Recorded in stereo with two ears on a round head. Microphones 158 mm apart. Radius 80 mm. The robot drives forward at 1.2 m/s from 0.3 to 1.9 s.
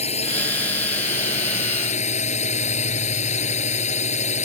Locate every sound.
0.0 s a drone: 35° left (ahead or behind); by 4.5 s 40° left (ahead or behind)